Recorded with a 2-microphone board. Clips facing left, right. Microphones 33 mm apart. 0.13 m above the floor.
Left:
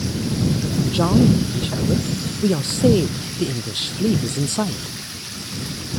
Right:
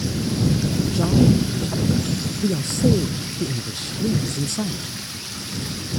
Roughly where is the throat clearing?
No throat clearing in this recording.